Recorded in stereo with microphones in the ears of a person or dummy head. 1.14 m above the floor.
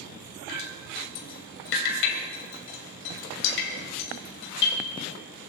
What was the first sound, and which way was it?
Dripping, 70° left (ahead or behind).